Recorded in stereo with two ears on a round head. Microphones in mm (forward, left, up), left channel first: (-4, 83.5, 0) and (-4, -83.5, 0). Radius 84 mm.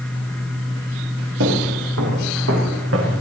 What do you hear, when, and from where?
1.4 s footsteps: 75° right (ahead or behind), 7 m; by 3.2 s 80° right, 6 m